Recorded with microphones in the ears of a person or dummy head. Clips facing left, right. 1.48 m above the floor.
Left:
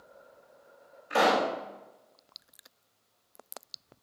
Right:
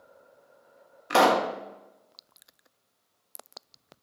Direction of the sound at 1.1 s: 75° right (ahead or behind).